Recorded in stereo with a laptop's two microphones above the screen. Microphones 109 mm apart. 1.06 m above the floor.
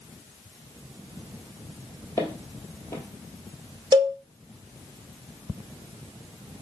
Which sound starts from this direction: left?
Footsteps, at 2.2 s.